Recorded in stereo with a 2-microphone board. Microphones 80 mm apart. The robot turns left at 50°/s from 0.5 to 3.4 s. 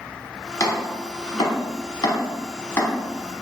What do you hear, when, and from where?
0.6 s chopping: 40° left (ahead or behind), 0.8 m; by 2.9 s 20° left (ahead or behind), 0.8 m